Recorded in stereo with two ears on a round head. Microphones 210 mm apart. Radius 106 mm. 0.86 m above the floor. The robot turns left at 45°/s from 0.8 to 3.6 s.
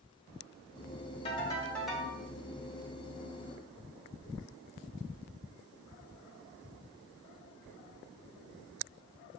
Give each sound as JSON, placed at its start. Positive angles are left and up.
{"t": 1.2, "sound": "a ringtone", "azimuth_deg": 25, "distance_m": 1.3}